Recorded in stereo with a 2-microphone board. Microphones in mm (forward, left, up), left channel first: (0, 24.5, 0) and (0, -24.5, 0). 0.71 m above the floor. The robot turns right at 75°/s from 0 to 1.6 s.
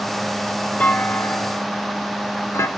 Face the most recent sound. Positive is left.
turn(degrees=70)  # may be behind; listen again after turning